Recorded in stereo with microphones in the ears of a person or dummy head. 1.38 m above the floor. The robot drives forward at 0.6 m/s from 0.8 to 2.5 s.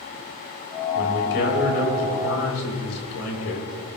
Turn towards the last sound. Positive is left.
turn(degrees=85)